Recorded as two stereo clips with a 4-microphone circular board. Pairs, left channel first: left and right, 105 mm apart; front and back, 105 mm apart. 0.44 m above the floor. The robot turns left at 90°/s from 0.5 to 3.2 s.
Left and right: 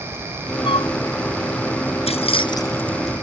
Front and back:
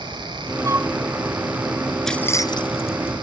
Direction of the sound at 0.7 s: 125° left.